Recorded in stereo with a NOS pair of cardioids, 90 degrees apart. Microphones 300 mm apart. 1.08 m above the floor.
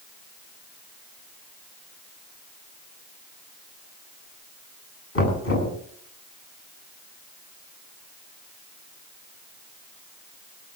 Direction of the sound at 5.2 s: 45° left.